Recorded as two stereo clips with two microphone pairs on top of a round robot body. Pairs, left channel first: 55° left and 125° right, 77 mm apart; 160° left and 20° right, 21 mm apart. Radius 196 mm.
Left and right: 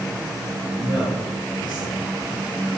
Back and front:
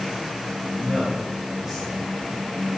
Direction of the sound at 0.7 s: 55° left.